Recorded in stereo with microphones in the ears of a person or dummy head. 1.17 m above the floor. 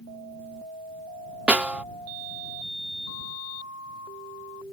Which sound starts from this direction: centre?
A snare drum, at 1.5 s.